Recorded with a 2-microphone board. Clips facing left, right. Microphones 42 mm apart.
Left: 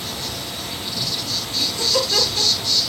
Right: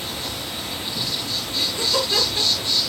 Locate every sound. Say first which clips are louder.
0.0 s an insect: even; 25° right (ahead or behind), 1.7 m
1.5 s laughter: left 1 dB; 40° right (ahead or behind), 4 m